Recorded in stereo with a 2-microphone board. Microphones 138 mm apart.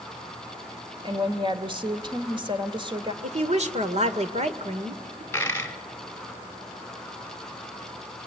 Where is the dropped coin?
15° left (ahead or behind), 1.6 m.